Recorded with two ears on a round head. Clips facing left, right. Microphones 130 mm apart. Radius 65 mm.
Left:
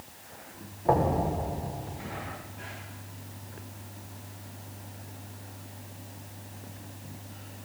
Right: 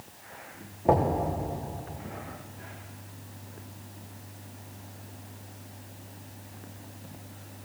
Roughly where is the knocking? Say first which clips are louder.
Right 1 dB; right.